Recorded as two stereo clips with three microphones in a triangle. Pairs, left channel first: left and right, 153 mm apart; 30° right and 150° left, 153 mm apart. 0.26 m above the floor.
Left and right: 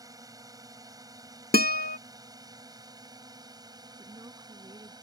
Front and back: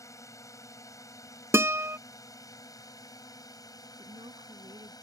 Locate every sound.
0.0 s a drone: 65° right; by 5.0 s 60° right
1.5 s a guitar: 80° left
4.0 s a woman speaking: 155° right